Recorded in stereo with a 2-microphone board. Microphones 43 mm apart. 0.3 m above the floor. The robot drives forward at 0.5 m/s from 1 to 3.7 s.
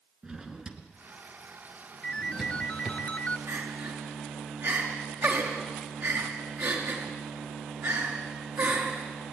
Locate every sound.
0.2 s a drawer: 20° right (ahead or behind), 2.5 m; by 3.0 s 15° right (ahead or behind), 3.5 m
2.0 s a ringtone: 20° left (ahead or behind), 1.3 m; by 3.4 s 35° left (ahead or behind), 0.8 m
3.5 s crying: 60° right (ahead or behind), 5 m